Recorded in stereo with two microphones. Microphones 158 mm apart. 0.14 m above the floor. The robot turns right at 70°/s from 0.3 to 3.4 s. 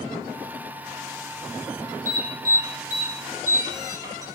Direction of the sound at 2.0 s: 55° right (ahead or behind).